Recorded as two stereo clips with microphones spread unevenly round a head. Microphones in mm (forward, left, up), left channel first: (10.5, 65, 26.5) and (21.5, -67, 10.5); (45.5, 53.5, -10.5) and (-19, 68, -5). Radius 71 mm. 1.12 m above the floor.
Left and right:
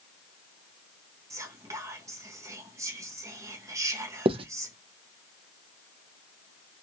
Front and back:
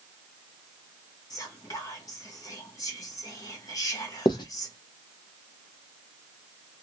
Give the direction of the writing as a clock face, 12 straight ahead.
1 o'clock.